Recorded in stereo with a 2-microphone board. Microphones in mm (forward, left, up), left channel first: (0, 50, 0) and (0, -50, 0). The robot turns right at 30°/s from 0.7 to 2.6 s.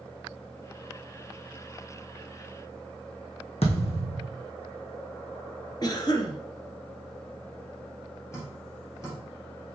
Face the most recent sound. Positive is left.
turn(degrees=30)  # may be behind; listen again after turning